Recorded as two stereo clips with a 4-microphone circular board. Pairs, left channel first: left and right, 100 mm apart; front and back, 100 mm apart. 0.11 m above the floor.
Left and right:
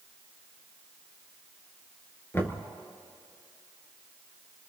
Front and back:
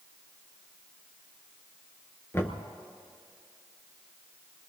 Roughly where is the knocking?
Ahead left.